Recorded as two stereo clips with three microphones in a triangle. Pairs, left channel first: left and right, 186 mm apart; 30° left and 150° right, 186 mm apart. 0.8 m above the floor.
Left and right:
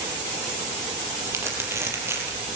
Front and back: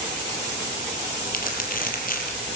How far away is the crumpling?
About 6 m.